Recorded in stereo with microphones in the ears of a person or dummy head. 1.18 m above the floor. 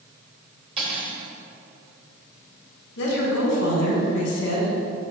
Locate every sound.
0.8 s cutlery clinking: 30° right (ahead or behind), 1.7 m
3.0 s a woman speaking: 65° left (ahead or behind), 1.7 m